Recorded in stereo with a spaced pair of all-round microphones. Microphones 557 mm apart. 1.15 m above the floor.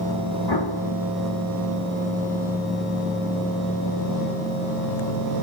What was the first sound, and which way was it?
An explosion, 45° left (ahead or behind).